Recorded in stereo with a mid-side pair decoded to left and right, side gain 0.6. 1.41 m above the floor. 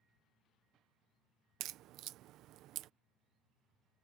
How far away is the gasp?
No gasp in this recording.